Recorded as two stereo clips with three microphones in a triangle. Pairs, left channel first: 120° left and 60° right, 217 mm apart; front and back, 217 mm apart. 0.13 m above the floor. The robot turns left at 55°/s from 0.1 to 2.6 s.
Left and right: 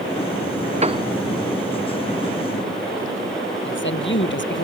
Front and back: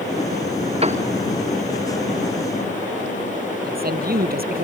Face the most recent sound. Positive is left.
turn(degrees=140)